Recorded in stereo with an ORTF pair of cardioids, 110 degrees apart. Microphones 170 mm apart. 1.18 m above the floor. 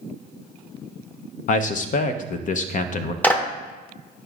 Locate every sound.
1.5 s a man speaking: 50° left, 0.6 m
3.2 s a clap: 10° left, 0.8 m